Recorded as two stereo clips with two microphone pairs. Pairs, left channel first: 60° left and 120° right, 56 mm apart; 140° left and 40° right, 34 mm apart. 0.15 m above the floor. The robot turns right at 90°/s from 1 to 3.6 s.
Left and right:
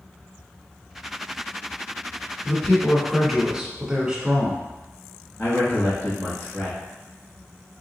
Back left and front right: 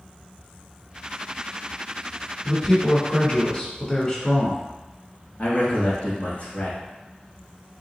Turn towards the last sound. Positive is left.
turn(degrees=105)